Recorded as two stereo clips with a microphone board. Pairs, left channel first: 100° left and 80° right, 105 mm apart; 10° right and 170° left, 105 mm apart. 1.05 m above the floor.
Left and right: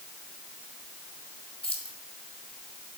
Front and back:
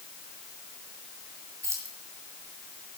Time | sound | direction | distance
1.6 | keys jangling | 110° left | 2.5 m